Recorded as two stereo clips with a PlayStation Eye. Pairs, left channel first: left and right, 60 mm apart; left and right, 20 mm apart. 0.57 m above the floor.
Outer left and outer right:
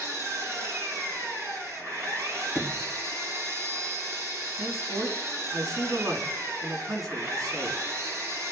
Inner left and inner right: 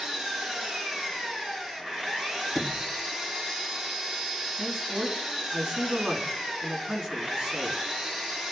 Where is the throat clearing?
No throat clearing in this recording.